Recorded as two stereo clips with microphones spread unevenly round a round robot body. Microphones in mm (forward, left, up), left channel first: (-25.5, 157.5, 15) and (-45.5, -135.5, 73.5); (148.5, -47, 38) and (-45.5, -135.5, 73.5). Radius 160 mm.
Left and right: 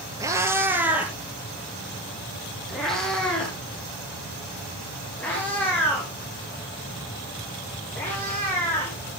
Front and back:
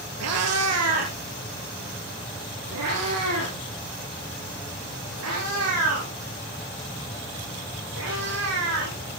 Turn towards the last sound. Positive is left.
turn(degrees=170)